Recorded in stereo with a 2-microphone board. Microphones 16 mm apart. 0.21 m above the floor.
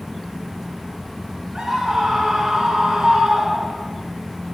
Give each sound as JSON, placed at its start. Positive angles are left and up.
{"t": 1.6, "sound": "a scream", "side_deg": -50, "distance_m": 2.5}